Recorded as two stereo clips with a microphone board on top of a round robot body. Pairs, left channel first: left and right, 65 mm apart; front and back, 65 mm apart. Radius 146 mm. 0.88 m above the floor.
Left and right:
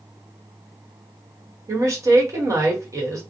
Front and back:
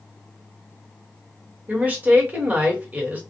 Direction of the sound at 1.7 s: 120° right.